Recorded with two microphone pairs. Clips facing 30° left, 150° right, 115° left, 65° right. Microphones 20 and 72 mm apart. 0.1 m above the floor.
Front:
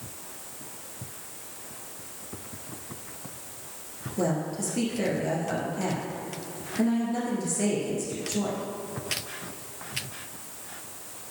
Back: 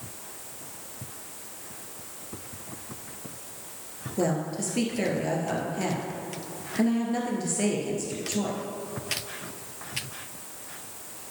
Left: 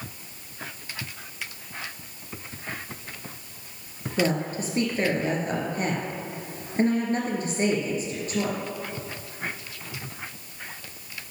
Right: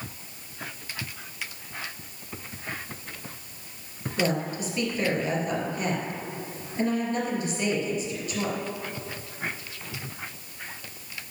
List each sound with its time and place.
4.2 s a woman speaking: 150° left, 1.9 m